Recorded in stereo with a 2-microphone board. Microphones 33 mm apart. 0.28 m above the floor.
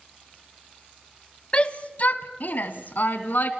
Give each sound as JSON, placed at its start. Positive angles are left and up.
{"t": 1.5, "sound": "a shout", "side_deg": 35, "distance_m": 1.4}